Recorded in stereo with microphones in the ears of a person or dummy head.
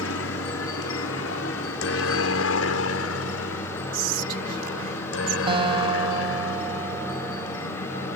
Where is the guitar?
30° right (ahead or behind).